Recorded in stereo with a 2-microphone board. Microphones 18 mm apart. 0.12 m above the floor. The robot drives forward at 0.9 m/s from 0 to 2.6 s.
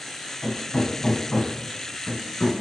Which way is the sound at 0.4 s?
60° left (ahead or behind).